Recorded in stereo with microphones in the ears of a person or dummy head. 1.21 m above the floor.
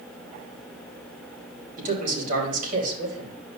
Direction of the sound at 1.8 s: 55° right (ahead or behind).